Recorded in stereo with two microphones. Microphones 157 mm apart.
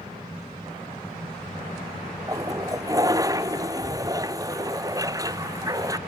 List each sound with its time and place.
2.3 s a toilet flushing: 20° right (ahead or behind)